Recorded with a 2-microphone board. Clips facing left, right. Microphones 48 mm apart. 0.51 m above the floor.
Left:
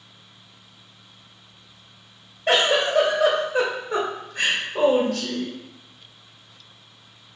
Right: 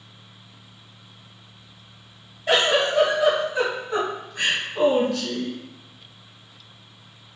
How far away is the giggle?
About 0.8 m.